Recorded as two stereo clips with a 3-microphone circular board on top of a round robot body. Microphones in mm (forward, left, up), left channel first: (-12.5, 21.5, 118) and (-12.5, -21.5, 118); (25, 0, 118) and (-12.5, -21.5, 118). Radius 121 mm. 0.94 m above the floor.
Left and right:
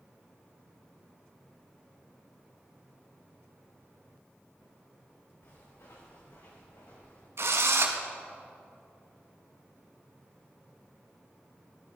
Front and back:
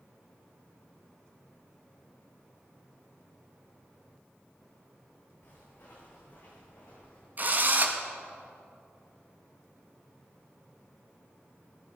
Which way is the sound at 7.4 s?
100° right.